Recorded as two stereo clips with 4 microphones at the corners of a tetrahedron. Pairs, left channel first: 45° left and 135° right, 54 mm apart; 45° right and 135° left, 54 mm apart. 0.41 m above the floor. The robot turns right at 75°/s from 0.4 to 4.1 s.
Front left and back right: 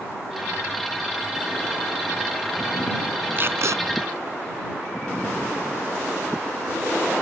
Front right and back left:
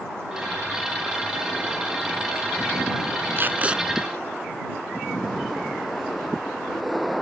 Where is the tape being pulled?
175° left; by 3.8 s 150° right.